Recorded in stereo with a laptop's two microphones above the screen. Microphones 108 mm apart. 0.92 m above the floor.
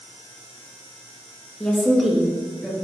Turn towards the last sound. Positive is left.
turn(degrees=-10)  # may be behind; listen again after turning